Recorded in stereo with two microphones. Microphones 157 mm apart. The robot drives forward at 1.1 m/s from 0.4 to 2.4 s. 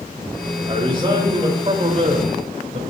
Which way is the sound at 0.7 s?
35° right (ahead or behind).